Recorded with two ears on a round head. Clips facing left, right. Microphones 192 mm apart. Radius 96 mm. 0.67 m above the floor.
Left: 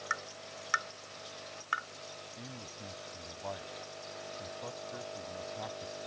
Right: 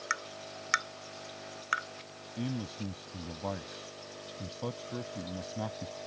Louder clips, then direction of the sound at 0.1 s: Right 2 dB; 30° right (ahead or behind).